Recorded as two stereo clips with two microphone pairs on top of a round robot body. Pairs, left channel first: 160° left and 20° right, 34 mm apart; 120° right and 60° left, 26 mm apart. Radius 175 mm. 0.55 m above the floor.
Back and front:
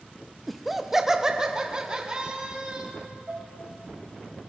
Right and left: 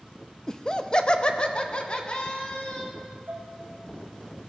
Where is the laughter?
115° right, 1.0 m; by 2.9 s 80° right, 2.5 m.